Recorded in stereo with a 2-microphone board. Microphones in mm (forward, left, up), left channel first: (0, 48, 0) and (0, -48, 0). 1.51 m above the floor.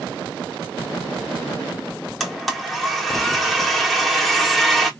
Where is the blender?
Centre (ahead or behind), 0.9 m.